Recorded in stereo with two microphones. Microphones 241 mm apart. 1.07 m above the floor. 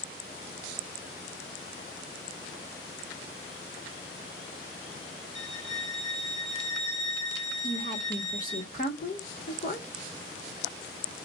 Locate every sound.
5.3 s a violin: 50° left (ahead or behind), 0.9 m
7.6 s a woman speaking: 35° left (ahead or behind), 1.5 m